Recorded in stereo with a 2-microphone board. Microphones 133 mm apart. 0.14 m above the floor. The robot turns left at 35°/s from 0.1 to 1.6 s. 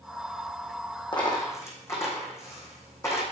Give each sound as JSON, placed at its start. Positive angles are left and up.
{"t": 1.1, "sound": "a dropped coin", "side_deg": 40, "distance_m": 3.0}